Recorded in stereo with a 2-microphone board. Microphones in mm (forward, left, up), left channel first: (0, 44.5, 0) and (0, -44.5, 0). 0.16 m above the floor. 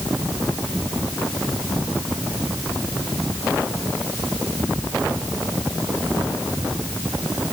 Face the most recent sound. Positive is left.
No sound to turn to.